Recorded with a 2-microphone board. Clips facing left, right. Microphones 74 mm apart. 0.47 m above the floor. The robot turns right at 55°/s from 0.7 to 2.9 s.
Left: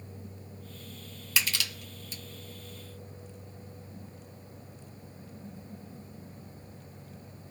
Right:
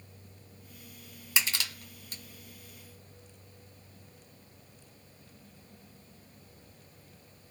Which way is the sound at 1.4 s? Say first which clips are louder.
Left 1 dB; 25° right (ahead or behind).